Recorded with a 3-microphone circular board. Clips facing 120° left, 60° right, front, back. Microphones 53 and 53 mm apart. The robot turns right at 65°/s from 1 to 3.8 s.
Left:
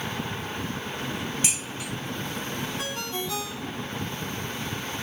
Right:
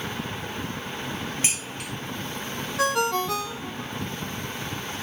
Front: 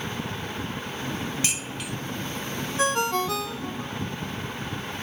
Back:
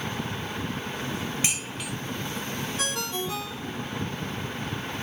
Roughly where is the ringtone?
Ahead right.